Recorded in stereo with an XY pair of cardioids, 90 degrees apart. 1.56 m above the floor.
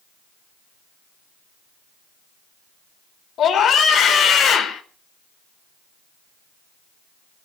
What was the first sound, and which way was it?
A scream, 70° left.